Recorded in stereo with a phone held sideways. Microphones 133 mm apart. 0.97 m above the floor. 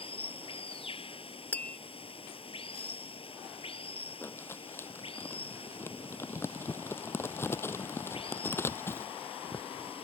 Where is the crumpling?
20° left (ahead or behind).